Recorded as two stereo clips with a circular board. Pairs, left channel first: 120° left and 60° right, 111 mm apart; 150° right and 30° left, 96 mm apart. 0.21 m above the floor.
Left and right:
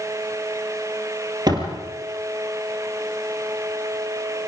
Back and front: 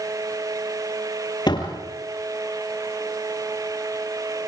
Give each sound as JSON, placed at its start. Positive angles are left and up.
{"t": 1.5, "sound": "a door slam", "azimuth_deg": -110, "distance_m": 3.5}